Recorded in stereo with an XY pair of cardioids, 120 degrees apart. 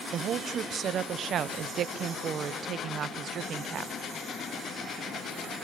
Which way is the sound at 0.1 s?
50° right.